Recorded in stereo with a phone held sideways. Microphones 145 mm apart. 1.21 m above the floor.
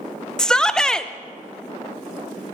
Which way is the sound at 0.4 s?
5° left (ahead or behind).